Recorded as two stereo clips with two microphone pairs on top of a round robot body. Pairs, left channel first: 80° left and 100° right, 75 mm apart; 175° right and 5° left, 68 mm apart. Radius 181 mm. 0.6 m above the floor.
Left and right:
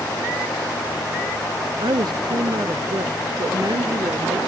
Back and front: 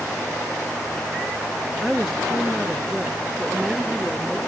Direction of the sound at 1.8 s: 85° right.